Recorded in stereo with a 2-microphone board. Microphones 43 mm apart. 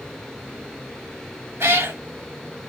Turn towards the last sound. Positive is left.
turn(degrees=-80)